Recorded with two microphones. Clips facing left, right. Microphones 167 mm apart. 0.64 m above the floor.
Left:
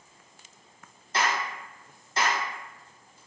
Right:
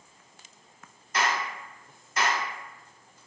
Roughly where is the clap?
Left.